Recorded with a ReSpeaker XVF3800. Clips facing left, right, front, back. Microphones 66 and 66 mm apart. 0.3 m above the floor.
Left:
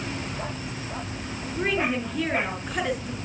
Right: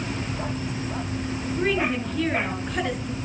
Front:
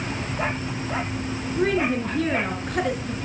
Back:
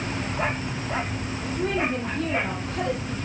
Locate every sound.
1.6 s a woman speaking: 5° left, 4 m